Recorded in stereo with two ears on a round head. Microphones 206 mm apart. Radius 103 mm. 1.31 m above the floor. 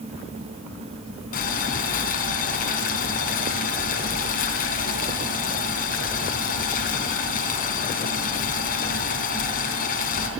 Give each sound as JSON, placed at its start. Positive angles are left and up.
{"t": 1.3, "sound": "boiling", "side_deg": 40, "distance_m": 4.0}